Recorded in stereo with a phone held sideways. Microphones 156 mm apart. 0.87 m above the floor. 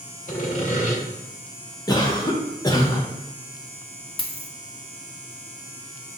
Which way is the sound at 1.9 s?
25° left (ahead or behind).